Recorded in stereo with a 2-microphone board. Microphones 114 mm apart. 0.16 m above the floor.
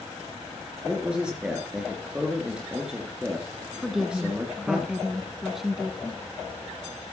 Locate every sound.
0.8 s a man speaking: 5° right (ahead or behind), 2.5 m
3.8 s a woman speaking: 5° right (ahead or behind), 1.4 m